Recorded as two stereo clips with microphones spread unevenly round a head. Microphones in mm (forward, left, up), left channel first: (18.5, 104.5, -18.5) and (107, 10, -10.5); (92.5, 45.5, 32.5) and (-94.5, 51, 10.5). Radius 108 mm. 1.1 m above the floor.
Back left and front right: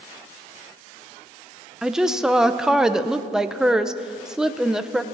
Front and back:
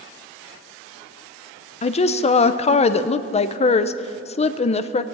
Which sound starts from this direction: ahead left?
A woman speaking, at 1.8 s.